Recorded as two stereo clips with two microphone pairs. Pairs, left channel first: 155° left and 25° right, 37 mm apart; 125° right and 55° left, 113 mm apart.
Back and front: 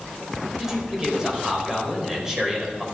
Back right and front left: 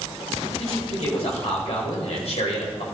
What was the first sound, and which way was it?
A man speaking, 100° right.